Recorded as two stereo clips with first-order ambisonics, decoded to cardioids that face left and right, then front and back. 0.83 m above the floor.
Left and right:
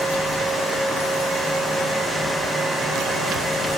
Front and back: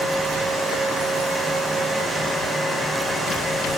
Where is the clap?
I don't hear a clap.